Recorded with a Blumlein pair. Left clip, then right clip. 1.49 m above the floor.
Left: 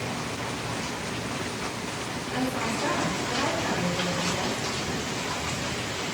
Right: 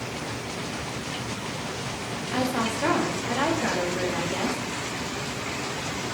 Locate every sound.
2.3 s a woman speaking: 25° right, 3 m